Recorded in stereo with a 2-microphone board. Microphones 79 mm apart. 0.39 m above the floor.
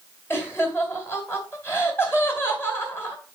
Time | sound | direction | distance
0.3 | laughter | 25° left (ahead or behind) | 2.5 m